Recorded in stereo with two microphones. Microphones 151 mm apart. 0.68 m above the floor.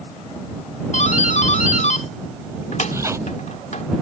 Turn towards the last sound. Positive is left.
turn(degrees=-20)  # may be behind; listen again after turning